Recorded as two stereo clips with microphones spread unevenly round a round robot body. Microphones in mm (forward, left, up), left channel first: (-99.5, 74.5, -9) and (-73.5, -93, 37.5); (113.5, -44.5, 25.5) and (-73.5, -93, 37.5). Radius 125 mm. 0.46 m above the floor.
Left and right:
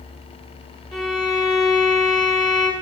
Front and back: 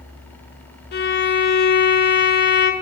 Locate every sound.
0.9 s a violin: 20° left, 1.1 m